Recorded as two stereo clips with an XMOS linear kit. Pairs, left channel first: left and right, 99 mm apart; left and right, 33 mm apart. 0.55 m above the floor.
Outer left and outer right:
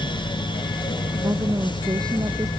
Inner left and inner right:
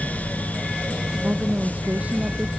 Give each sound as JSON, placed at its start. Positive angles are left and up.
{"t": 1.2, "sound": "a woman speaking", "side_deg": -40}